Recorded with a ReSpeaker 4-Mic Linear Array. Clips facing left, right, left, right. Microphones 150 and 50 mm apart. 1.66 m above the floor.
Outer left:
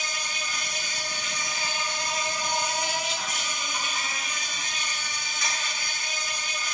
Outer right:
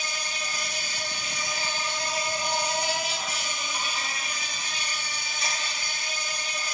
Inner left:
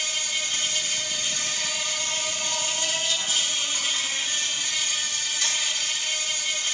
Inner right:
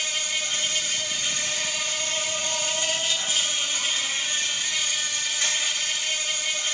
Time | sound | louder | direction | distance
0.0 | an insect | even, inner right 1 dB | 30° right (ahead or behind) | 2.5 m